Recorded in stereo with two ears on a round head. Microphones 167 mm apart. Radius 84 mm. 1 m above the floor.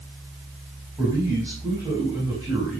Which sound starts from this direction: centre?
A man speaking, at 1.0 s.